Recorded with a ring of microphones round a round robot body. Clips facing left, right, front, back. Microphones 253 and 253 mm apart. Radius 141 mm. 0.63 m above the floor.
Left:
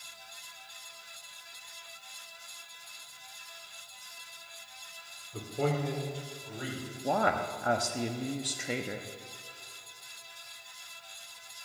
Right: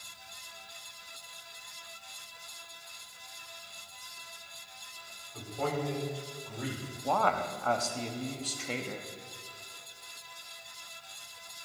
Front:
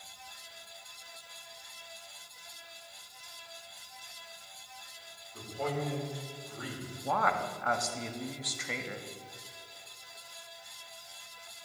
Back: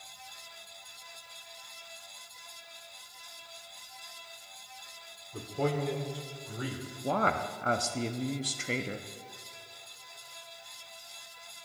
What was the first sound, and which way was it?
A man speaking, 145° left.